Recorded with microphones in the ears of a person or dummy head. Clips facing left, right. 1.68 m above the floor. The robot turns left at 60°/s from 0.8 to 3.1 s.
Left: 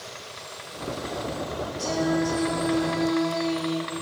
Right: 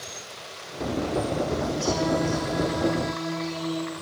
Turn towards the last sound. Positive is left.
turn(degrees=70)